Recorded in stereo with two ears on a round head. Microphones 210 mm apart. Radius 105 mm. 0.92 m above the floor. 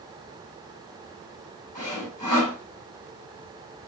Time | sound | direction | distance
1.8 | sawing | 30° left (ahead or behind) | 2.5 m